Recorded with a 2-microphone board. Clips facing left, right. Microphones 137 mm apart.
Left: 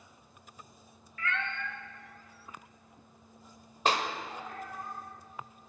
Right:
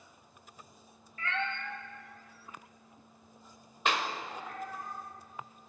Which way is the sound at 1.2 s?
30° right (ahead or behind).